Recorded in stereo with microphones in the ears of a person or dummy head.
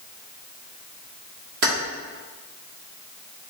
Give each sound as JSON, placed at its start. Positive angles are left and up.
{"t": 1.6, "sound": "keys jangling", "side_deg": -55, "distance_m": 1.5}